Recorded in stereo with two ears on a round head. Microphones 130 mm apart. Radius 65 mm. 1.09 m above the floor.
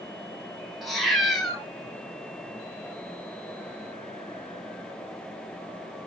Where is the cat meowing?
Centre (ahead or behind), 0.8 m.